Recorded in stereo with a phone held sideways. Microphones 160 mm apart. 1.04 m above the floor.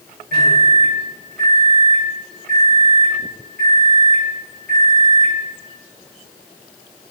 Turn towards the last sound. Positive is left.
turn(degrees=-75)  # may be behind; listen again after turning